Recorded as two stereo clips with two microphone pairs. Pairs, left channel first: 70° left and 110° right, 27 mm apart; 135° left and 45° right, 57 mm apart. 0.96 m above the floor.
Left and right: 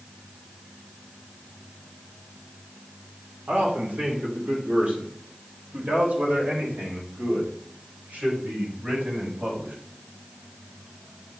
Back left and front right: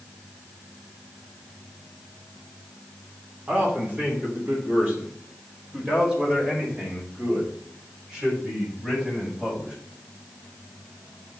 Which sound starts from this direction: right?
A man speaking, at 3.5 s.